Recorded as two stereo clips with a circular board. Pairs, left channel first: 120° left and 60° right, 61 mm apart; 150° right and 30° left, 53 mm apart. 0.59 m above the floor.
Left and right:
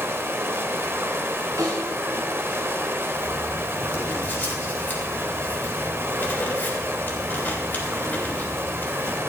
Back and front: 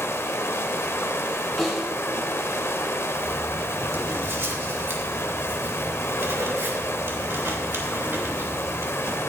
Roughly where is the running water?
Right.